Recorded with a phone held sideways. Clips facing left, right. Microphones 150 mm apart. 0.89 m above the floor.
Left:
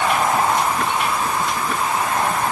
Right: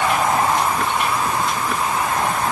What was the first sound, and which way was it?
Only background noise.